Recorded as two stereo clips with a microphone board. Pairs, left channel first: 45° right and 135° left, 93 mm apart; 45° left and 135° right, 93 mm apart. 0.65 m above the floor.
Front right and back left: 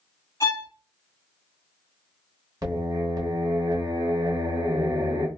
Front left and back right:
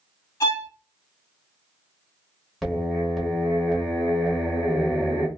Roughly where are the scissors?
I don't hear scissors.